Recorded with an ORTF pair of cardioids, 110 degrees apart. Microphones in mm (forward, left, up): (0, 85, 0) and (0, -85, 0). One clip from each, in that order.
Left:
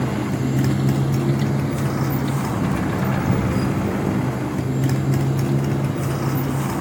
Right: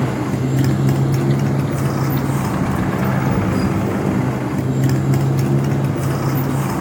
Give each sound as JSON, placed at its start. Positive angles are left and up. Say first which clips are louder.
{"t": 0.0, "sound": "a motorcycle", "louder": "right 3 dB", "azimuth_deg": -20}